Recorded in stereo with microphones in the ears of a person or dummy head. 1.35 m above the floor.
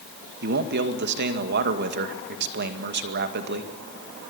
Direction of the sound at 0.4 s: 50° right (ahead or behind).